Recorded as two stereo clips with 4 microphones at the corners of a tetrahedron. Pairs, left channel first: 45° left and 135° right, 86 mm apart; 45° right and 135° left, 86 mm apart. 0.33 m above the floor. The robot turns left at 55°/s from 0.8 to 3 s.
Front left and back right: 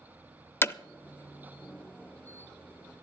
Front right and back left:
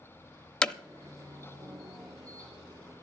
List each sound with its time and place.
0.6 s hammering: 20° left, 0.6 m